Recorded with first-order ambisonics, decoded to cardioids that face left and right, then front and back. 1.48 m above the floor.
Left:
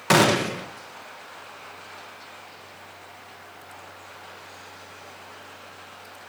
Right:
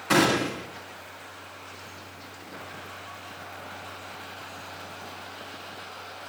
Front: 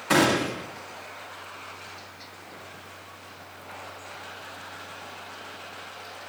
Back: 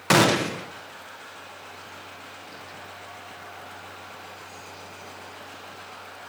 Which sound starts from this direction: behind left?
A gunshot, at 0.1 s.